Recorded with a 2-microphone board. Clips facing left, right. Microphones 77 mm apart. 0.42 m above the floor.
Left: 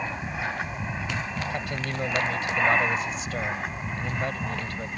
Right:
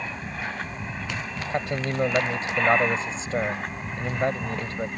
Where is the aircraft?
10° left (ahead or behind); by 5.0 s centre (ahead or behind).